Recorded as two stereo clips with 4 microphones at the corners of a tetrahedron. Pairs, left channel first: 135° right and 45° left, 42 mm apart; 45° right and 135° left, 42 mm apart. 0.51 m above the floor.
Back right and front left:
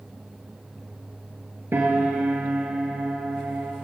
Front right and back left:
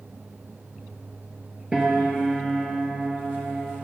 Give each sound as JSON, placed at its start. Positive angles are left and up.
{"t": 1.7, "sound": "a piano", "azimuth_deg": 65, "distance_m": 3.0}